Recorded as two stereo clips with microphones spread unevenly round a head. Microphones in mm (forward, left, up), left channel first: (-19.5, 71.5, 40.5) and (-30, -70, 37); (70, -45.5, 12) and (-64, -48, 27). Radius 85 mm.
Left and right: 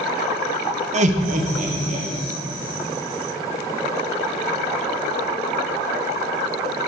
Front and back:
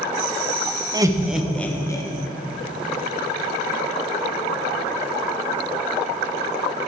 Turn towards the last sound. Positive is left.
turn(degrees=-60)